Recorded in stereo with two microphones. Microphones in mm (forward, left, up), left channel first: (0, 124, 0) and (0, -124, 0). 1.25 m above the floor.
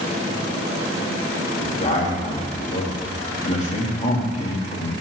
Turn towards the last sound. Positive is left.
turn(degrees=30)  # may be behind; listen again after turning